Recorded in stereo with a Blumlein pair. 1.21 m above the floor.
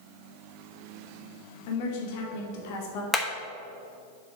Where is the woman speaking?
45° left, 1.8 m.